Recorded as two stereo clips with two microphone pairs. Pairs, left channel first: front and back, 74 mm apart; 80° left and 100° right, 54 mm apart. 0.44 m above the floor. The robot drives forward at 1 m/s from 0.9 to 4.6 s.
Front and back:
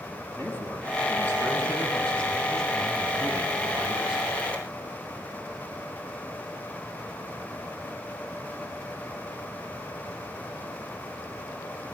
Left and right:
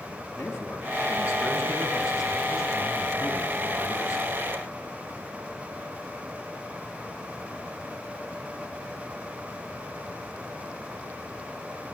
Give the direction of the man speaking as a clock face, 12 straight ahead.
10 o'clock.